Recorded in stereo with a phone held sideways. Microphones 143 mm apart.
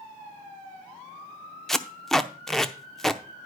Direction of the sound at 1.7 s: 5° left (ahead or behind).